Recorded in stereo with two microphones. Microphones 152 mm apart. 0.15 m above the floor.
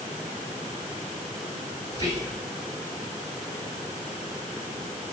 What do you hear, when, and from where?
1.9 s whispering: 25° right (ahead or behind), 1.1 m